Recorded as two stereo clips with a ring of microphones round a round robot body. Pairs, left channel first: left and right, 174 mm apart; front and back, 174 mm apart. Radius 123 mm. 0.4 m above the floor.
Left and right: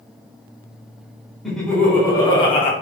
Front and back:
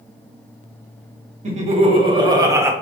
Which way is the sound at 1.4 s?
Straight behind.